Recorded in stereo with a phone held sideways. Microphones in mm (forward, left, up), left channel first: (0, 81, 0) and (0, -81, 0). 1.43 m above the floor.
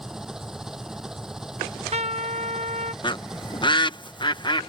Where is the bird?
25° left (ahead or behind).